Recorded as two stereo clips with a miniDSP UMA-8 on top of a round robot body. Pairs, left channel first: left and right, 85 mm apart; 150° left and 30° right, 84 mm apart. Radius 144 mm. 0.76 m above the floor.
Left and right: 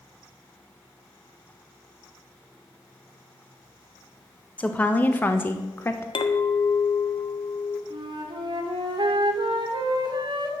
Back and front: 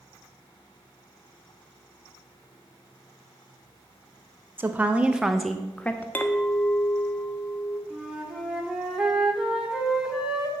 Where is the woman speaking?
25° left, 1.3 m; by 6.0 s 110° left, 1.1 m.